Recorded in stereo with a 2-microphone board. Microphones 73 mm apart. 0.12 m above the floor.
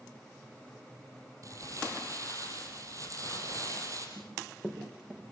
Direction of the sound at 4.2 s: 20° right (ahead or behind).